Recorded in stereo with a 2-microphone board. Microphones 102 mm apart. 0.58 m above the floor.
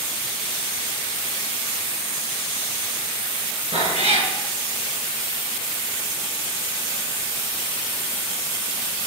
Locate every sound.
3.7 s a cat meowing: 85° right, 3.5 m